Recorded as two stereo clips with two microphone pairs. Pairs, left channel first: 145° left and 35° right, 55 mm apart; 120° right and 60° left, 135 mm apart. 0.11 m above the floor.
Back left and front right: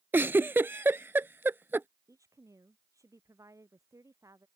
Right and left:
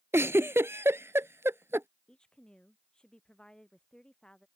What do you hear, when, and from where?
0.1 s a giggle: 5° right
2.1 s a woman speaking: 40° right